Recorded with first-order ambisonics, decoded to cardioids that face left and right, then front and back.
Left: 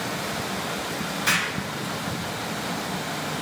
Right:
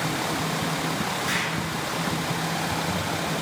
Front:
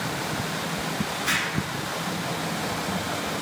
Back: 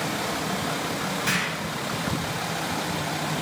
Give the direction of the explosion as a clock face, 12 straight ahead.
8 o'clock.